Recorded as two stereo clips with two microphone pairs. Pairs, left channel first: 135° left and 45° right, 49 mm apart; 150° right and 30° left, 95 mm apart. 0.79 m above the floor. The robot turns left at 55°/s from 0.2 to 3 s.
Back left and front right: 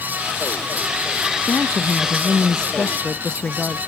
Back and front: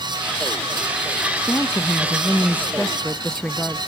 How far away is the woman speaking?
About 0.6 m.